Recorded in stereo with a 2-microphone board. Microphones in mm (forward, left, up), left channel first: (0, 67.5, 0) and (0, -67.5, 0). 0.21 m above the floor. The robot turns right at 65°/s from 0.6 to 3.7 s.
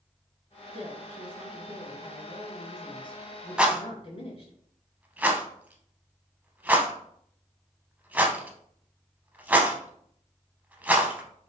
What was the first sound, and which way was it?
A woman speaking, 90° right.